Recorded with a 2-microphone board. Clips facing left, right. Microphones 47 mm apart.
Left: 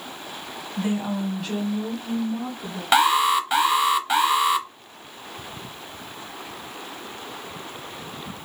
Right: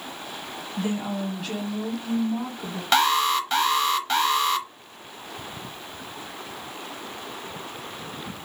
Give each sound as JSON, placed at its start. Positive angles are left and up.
{"t": 0.8, "sound": "a woman speaking", "side_deg": 25, "distance_m": 1.6}
{"t": 2.9, "sound": "an alarm", "side_deg": 10, "distance_m": 0.6}